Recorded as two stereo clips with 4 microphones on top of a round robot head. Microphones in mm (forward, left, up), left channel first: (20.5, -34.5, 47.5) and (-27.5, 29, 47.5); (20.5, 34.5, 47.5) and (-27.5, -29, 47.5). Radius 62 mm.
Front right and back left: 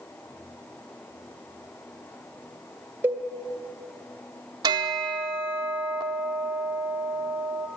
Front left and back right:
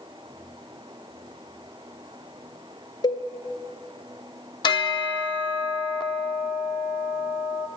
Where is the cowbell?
65° left, 1.6 m.